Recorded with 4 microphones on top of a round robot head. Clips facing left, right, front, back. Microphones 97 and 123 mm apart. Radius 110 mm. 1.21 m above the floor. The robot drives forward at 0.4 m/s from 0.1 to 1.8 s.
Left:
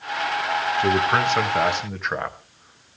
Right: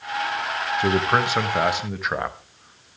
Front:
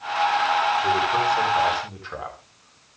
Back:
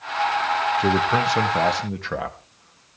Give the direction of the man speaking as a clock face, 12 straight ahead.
6 o'clock.